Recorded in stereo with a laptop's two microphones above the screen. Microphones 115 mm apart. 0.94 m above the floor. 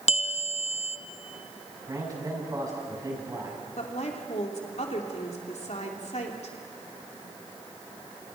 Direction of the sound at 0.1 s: 70° left (ahead or behind).